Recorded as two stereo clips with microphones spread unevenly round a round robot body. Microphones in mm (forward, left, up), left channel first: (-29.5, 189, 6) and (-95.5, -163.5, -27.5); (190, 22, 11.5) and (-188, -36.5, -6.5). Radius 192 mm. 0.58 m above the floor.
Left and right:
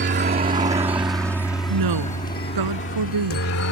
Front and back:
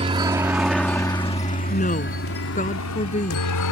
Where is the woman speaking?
60° right.